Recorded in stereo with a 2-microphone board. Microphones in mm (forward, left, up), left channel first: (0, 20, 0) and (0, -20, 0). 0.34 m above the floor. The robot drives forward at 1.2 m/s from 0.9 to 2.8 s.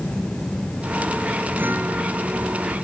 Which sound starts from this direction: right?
A guitar, at 1.6 s.